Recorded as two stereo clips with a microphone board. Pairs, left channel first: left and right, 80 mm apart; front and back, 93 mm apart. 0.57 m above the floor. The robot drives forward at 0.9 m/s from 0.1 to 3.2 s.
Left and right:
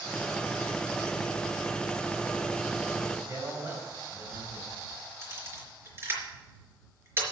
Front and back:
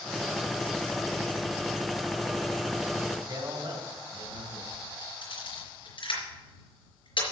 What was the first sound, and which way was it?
A man speaking, 145° right.